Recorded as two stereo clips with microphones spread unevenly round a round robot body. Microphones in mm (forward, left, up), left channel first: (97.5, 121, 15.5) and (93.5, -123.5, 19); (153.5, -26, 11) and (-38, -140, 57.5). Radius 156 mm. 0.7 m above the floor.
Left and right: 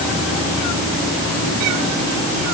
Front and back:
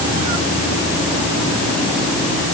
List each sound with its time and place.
Only background noise.